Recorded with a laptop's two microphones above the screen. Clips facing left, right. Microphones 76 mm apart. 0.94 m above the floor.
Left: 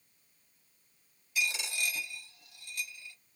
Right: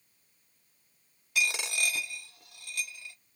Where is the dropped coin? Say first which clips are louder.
Right 4 dB; 75° right (ahead or behind), 1.0 m.